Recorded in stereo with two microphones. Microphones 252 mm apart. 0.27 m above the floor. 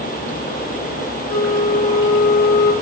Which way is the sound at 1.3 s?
15° left (ahead or behind).